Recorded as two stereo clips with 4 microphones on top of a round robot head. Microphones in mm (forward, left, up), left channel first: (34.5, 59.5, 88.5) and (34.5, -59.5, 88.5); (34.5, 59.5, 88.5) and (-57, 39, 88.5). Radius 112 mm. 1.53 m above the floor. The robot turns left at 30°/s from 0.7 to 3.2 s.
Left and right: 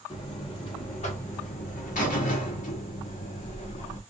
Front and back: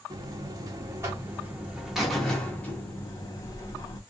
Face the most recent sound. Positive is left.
turn(degrees=70)